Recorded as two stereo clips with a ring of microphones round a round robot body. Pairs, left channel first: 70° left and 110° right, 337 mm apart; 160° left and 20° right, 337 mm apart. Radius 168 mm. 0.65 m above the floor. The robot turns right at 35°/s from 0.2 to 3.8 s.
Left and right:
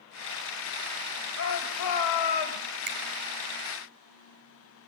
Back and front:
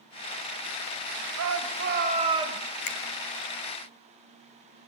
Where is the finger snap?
175° right, 3.5 m; by 3.0 s 170° right, 3.5 m.